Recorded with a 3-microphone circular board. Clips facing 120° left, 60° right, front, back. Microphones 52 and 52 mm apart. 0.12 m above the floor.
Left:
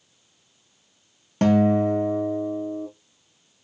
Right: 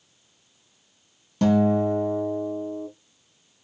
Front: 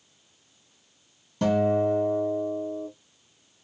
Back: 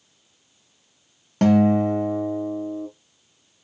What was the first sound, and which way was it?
A guitar, 160° left.